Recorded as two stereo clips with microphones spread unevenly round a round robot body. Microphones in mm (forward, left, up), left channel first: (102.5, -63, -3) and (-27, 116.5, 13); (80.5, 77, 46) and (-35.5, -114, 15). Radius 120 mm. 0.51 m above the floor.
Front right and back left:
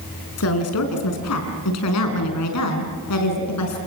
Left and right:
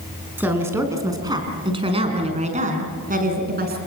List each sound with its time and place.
0.4 s a woman speaking: 40° right, 5.5 m; by 3.8 s 75° right, 5.5 m